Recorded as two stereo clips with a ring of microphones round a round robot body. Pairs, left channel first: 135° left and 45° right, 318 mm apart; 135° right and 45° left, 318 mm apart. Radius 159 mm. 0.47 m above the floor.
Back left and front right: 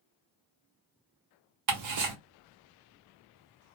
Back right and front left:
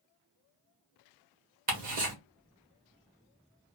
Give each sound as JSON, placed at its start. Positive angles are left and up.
{"t": 1.7, "sound": "ticking", "azimuth_deg": -20, "distance_m": 1.1}